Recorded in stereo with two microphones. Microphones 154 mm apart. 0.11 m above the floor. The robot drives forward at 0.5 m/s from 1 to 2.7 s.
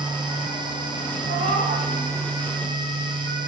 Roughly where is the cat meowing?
Right.